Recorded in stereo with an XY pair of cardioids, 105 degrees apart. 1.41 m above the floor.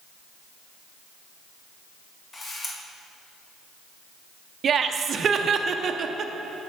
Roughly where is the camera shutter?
Ahead left.